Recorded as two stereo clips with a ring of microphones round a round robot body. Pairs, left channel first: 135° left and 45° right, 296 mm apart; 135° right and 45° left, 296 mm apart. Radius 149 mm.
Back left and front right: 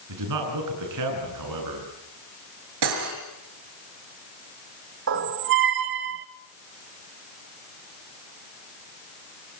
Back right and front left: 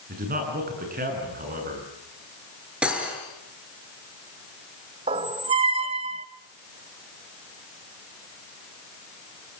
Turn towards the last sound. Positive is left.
turn(degrees=-15)